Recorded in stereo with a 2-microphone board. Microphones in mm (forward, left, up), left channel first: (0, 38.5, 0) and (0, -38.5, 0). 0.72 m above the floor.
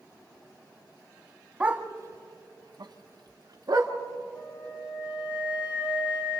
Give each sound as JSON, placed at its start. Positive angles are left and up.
{"t": 1.6, "sound": "a dog barking", "side_deg": -15, "distance_m": 1.1}
{"t": 4.3, "sound": "a flute", "side_deg": 85, "distance_m": 4.5}